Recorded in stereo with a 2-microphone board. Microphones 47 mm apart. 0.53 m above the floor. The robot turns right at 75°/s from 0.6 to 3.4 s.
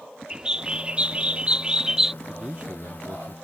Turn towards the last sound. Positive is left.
turn(degrees=-85)